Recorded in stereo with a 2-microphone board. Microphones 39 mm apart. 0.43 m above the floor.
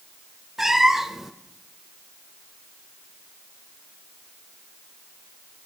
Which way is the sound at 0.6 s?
10° right (ahead or behind).